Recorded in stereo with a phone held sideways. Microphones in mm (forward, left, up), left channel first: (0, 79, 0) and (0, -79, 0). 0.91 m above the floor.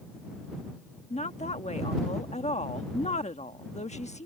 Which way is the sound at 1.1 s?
45° left (ahead or behind).